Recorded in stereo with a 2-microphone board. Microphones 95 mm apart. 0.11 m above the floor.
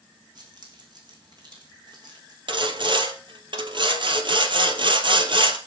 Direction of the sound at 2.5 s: 55° right (ahead or behind).